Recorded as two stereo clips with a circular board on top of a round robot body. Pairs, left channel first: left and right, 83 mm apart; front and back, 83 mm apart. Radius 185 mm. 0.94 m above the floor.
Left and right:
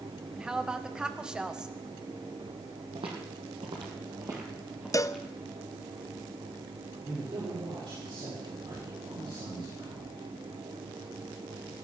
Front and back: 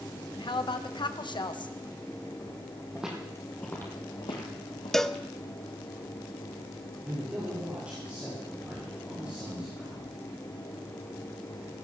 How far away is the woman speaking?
About 1.4 m.